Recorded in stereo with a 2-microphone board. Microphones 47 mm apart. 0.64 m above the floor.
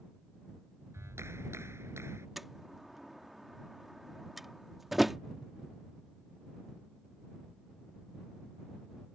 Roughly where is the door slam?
Centre.